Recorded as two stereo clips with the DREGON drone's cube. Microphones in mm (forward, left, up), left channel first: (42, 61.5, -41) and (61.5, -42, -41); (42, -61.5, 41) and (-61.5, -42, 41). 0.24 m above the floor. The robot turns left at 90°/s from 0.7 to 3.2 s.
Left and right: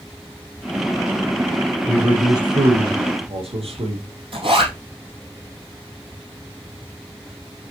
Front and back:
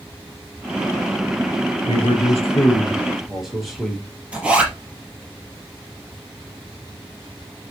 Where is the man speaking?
15° left, 5 m; by 4.0 s 105° right, 5 m.